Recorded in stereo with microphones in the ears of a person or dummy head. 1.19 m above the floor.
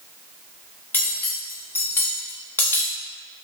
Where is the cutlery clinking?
10° left (ahead or behind), 0.6 m.